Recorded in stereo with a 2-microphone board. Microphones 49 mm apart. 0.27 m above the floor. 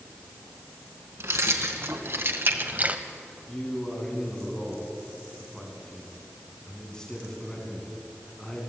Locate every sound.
1.2 s keys jangling: 60° right (ahead or behind), 2.5 m; by 3.0 s 25° right (ahead or behind), 1.0 m
3.5 s a man speaking: 15° left (ahead or behind), 3 m